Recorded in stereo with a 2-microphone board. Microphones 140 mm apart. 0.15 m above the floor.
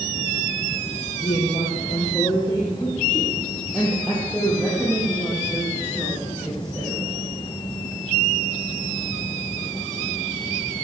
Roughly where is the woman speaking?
Left.